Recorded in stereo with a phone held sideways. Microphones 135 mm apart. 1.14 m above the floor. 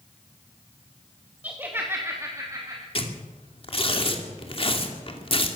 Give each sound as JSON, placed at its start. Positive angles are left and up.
{"t": 1.4, "sound": "laughter", "side_deg": -10, "distance_m": 2.0}
{"t": 3.0, "sound": "tearing paper", "side_deg": 45, "distance_m": 2.5}